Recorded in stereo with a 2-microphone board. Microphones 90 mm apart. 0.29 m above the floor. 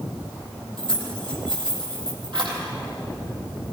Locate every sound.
0.8 s keys jangling: 60° right (ahead or behind), 7.5 m